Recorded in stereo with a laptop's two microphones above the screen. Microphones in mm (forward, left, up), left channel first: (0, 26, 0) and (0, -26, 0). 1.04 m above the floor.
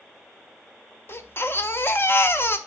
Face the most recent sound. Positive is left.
turn(degrees=45)  # may be behind; listen again after turning